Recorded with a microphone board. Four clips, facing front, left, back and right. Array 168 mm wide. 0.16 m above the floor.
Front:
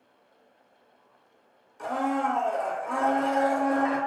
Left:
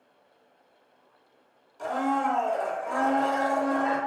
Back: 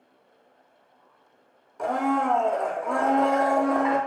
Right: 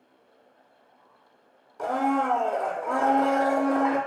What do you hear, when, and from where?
1.8 s a blender: 140° right, 0.6 m